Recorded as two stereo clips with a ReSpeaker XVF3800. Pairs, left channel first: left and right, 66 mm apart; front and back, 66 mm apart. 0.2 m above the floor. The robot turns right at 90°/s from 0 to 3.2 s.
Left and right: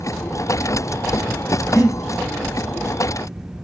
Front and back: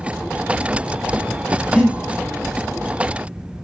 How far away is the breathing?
About 5.5 m.